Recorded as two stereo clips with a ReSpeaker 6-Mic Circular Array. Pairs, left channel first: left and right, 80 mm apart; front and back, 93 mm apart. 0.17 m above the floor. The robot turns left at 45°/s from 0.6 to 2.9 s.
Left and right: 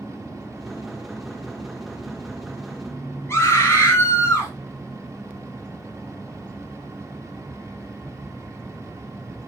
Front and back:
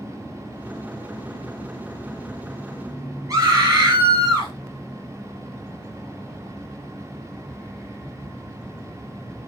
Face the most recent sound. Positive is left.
turn(degrees=135)